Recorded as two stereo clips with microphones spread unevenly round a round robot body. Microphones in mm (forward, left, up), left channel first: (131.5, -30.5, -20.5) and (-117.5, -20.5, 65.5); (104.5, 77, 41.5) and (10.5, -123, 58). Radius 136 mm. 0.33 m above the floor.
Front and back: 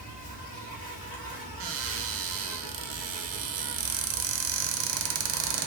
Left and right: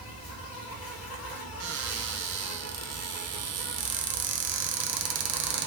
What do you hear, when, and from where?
0.0 s an insect: 70° left, 1.9 m
1.6 s a cupboard door: 140° right, 0.8 m